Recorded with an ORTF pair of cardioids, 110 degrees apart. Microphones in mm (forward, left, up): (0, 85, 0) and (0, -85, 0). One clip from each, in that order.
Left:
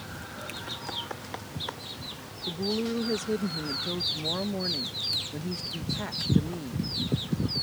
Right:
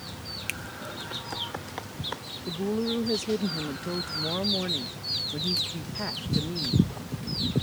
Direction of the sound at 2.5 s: Straight ahead.